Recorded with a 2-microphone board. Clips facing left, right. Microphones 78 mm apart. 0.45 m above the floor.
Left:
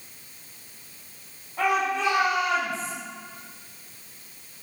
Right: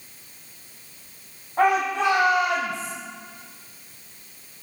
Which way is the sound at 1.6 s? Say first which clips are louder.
Right 4 dB; 50° right (ahead or behind).